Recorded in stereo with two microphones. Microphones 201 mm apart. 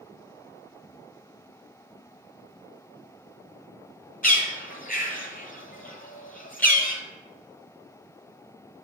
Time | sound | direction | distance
4.2 | a bird | 45° left (ahead or behind) | 1.0 m